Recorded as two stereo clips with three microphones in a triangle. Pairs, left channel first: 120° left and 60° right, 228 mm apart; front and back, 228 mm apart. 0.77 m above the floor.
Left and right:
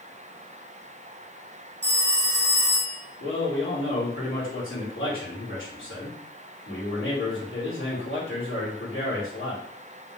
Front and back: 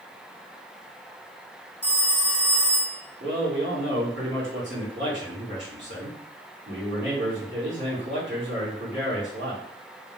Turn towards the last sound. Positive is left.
turn(degrees=145)